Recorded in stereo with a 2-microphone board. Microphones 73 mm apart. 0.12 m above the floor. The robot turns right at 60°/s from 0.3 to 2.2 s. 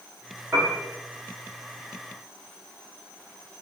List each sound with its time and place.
0.5 s a piano: 25° right (ahead or behind), 1.2 m; by 0.8 s 40° right (ahead or behind), 1.2 m